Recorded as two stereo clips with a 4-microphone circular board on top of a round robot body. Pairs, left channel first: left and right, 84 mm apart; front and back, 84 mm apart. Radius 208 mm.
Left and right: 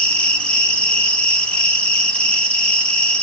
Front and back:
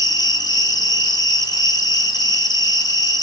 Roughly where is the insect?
Ahead.